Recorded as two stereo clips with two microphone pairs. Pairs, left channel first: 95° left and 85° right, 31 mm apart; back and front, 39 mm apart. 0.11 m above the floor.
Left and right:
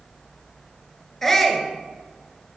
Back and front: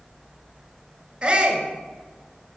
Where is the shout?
25° left, 1.6 m.